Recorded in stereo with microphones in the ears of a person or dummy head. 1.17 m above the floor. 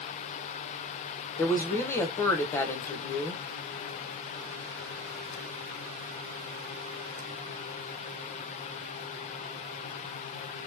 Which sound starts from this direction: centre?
A woman speaking, at 1.4 s.